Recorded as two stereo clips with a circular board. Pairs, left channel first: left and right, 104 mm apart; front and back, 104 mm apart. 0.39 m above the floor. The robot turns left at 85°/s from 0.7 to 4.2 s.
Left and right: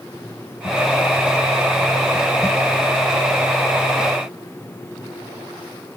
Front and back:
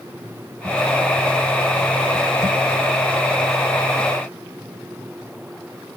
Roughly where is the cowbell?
No cowbell in this recording.